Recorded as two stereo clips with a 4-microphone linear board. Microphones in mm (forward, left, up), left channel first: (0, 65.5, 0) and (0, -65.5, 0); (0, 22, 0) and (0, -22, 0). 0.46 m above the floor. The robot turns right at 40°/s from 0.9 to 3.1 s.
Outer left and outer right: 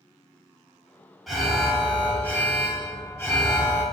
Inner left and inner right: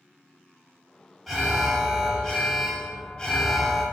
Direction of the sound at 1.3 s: Centre (ahead or behind).